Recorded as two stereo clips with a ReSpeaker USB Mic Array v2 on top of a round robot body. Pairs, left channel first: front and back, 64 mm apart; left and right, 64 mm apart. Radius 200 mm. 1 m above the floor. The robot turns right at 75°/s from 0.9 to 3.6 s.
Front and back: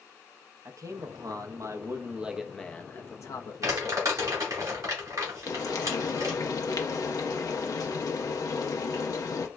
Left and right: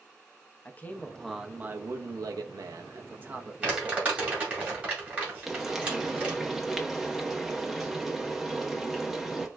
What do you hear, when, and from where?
0.7 s a man speaking: 150° left, 0.6 m; by 4.3 s 5° right, 0.6 m
3.6 s crumpling: 155° right, 1.7 m
5.5 s frying: 5° right, 0.6 m